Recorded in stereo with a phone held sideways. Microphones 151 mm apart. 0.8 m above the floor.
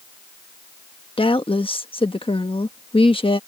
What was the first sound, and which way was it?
A woman speaking, 40° left (ahead or behind).